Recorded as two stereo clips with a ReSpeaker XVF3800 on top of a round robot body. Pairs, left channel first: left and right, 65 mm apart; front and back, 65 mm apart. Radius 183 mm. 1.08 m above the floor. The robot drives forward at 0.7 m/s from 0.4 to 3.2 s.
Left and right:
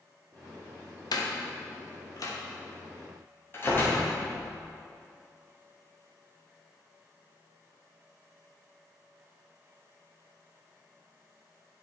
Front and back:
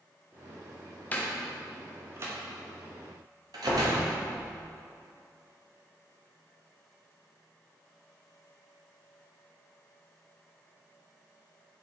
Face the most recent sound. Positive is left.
turn(degrees=150)